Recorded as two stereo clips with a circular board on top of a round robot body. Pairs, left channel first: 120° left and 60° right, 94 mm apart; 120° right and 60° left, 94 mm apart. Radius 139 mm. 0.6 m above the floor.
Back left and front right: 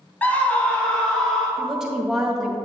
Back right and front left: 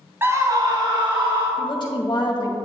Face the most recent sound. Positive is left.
turn(degrees=-145)